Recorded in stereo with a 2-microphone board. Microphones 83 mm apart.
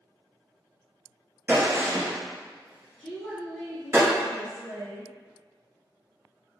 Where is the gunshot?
30° right (ahead or behind), 1.7 m.